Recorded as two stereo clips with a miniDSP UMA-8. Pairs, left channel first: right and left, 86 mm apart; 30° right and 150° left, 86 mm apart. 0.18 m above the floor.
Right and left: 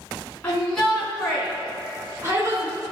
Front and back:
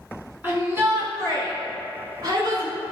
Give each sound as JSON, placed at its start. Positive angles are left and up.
{"t": 0.4, "sound": "a shout", "azimuth_deg": -155, "distance_m": 2.0}